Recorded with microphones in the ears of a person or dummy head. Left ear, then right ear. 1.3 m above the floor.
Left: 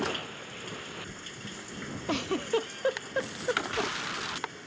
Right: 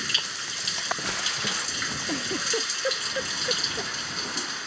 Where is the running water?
75° right (ahead or behind).